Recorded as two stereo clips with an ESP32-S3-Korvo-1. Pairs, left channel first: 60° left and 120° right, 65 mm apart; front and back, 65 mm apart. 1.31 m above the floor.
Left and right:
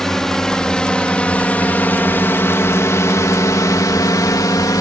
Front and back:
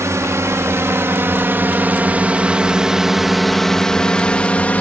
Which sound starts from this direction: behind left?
A drone, at 0.0 s.